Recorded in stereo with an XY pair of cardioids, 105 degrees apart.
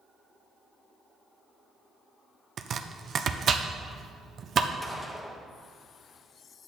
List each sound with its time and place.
2.6 s chopping: 50° right, 0.7 m
4.8 s a gunshot: 10° left, 1.5 m